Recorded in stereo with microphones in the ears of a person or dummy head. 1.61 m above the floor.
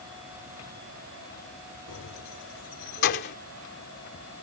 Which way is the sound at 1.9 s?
60° left (ahead or behind).